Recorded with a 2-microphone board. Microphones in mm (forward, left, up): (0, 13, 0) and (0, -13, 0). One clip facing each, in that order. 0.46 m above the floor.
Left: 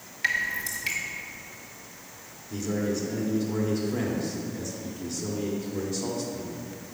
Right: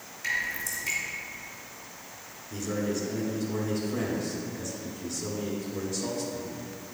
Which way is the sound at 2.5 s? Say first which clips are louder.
Left 2 dB; 10° left (ahead or behind).